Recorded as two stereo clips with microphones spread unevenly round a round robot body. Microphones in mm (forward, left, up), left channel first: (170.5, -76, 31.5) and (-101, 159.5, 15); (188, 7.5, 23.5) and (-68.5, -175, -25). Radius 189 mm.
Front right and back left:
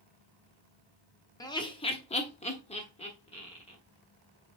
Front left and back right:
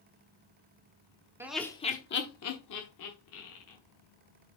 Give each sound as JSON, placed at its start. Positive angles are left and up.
{"t": 1.4, "sound": "laughter", "azimuth_deg": -110, "distance_m": 1.0}